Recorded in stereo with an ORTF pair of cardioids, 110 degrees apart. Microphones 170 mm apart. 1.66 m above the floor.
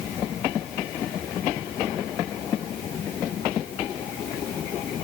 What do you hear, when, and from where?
Only background noise.